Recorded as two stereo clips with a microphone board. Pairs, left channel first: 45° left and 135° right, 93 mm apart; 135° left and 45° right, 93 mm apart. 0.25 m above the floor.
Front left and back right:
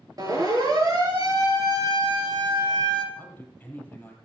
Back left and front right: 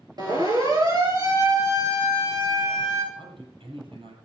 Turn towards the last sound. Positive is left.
turn(degrees=-25)